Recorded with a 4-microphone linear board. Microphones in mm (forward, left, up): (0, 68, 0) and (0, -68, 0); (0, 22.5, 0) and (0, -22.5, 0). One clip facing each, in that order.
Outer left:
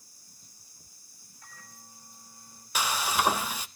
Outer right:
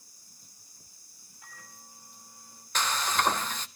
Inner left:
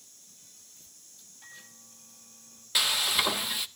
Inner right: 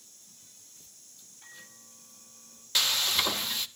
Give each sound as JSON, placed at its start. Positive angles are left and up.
{"t": 1.4, "sound": "a microwave", "side_deg": -10, "distance_m": 8.5}
{"t": 2.8, "sound": "frying", "side_deg": 10, "distance_m": 0.6}